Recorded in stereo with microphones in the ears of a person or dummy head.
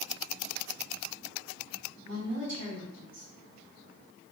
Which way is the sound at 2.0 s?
65° right (ahead or behind).